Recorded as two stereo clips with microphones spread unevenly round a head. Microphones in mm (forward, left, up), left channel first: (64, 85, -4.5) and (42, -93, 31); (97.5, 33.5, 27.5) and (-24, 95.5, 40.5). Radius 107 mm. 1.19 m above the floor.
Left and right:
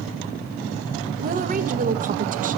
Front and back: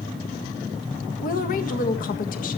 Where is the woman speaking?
50° right, 1.7 m.